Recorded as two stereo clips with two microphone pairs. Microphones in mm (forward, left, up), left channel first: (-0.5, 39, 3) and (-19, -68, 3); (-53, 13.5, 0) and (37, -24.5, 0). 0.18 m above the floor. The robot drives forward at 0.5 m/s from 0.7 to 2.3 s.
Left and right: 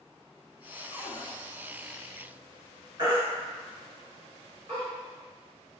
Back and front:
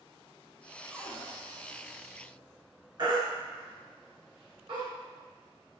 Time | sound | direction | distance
0.9 | a cupboard door | 55° left | 1.3 m
3.0 | a baby crying | 55° right | 2.0 m